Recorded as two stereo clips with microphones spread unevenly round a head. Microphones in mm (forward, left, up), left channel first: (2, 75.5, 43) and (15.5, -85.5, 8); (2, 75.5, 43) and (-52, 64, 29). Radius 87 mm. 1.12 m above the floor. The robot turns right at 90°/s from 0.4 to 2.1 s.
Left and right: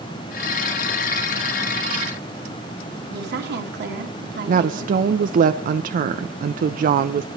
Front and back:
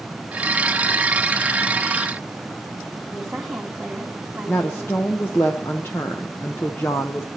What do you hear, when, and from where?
3.1 s a woman speaking: 85° right, 1.8 m
4.5 s a woman speaking: 55° right, 0.6 m